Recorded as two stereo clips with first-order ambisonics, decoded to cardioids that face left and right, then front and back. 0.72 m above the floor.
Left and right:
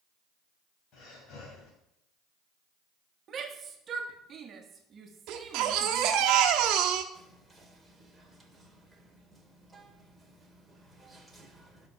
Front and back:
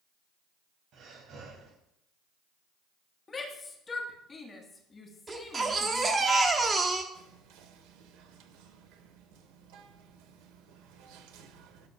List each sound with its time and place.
0.9 s breathing: 135° left, 3 m
3.3 s a shout: 60° right, 1.3 m
5.3 s a baby crying: 110° right, 1.1 m
7.1 s whispering: straight behind, 2 m